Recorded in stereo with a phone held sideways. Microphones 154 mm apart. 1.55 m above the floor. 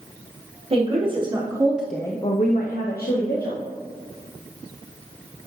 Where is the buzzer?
No buzzer in this recording.